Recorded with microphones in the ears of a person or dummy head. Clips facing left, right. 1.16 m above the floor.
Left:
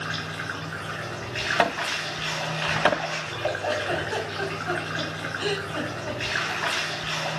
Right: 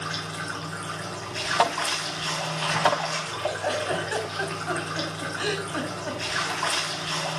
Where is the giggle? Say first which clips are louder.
Even; 25° right (ahead or behind), 5 m.